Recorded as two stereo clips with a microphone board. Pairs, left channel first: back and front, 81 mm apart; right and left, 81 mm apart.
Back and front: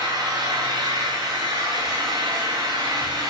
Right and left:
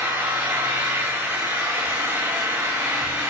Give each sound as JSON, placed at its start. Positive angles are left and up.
{"t": 0.0, "sound": "an engine running", "azimuth_deg": 20, "distance_m": 2.5}